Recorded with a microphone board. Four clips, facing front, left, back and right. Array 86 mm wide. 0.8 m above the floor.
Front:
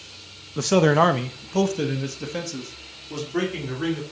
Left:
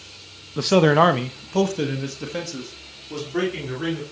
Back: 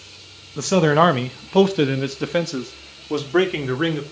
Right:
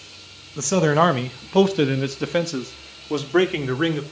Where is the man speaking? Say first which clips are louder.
Left 2 dB, back 2 dB; 75° left, 0.8 m; by 4.0 s 140° right, 2.5 m.